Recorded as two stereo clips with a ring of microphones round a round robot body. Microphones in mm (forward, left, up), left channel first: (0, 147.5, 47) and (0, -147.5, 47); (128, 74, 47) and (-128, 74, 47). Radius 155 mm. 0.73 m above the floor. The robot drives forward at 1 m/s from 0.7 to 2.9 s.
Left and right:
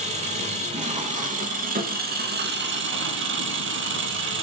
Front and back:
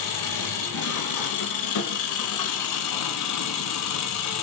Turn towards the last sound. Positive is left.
turn(degrees=-35)